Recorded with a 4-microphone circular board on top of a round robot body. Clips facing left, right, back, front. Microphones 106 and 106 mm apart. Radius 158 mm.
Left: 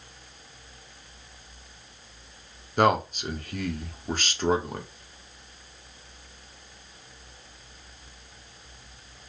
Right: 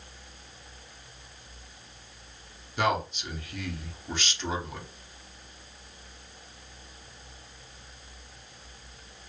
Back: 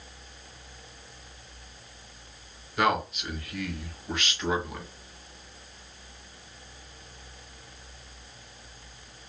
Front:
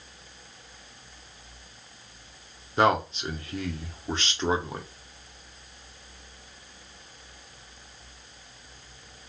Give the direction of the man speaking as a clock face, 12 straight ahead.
10 o'clock.